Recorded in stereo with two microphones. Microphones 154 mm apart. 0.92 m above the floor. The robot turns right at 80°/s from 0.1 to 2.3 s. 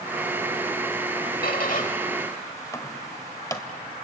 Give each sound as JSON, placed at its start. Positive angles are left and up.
{"t": 1.4, "sound": "a squeak", "side_deg": 70, "distance_m": 1.3}